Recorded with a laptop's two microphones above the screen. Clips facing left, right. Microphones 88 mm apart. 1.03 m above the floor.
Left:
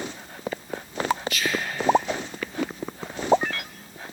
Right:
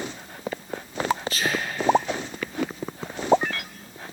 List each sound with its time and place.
1.3 s whispering: 35° right (ahead or behind), 0.6 m